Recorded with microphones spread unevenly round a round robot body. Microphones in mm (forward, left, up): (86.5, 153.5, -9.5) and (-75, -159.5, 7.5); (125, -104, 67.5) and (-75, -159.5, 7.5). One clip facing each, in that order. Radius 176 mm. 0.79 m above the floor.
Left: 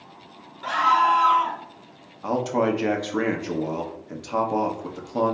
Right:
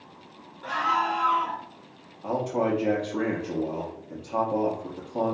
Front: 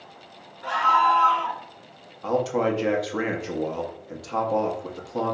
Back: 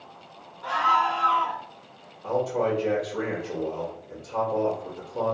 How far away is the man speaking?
About 0.7 m.